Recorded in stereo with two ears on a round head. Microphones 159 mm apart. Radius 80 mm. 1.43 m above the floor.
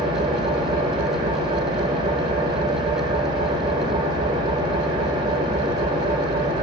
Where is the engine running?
25° right (ahead or behind), 0.9 m.